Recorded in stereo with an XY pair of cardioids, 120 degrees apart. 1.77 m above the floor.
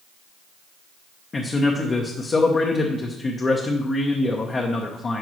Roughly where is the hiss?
No hiss in this recording.